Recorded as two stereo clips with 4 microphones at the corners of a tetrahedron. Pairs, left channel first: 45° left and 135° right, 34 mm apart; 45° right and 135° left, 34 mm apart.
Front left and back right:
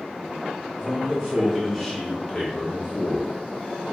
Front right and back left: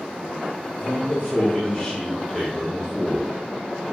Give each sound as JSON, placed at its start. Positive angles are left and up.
{"t": 0.8, "sound": "a man speaking", "azimuth_deg": -55, "distance_m": 1.1}